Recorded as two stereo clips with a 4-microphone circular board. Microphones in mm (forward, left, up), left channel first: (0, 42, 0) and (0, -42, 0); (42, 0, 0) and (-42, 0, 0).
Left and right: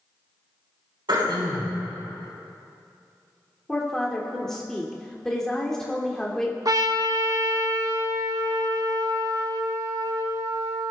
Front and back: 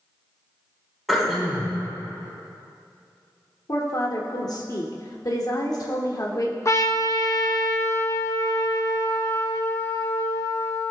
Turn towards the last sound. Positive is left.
turn(degrees=-50)